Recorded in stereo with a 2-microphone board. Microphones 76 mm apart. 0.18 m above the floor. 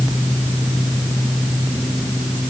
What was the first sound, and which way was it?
Only background noise.